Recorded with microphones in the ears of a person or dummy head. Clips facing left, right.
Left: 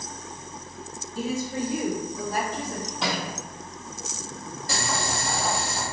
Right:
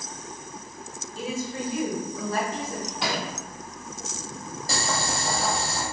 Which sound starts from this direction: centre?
A thud, at 3.0 s.